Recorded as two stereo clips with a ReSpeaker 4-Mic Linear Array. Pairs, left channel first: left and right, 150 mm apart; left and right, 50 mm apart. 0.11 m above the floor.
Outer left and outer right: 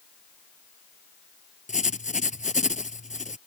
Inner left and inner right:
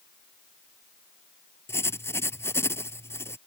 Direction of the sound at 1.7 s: 55° left (ahead or behind).